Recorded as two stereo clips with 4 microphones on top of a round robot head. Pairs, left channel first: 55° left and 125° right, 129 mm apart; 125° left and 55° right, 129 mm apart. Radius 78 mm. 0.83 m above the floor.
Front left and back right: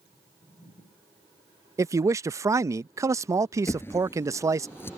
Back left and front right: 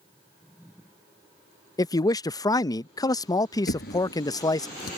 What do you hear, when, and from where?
1.8 s a man speaking: 175° left
3.7 s a drawer: 125° left